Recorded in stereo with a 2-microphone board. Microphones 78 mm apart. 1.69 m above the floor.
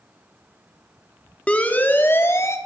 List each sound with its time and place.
1.5 s a siren: 15° left (ahead or behind), 3.5 m; by 2.6 s 40° left (ahead or behind), 3.5 m